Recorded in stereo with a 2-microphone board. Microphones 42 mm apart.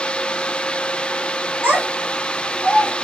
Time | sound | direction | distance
1.6 | a child speaking | 65° right (ahead or behind) | 2.5 m